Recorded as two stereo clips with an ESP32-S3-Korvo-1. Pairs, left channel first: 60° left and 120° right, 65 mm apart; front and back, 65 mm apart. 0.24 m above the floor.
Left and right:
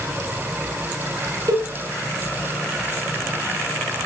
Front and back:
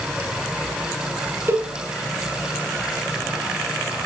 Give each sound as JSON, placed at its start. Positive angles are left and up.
{"t": 1.5, "sound": "a cowbell", "azimuth_deg": -130, "distance_m": 2.5}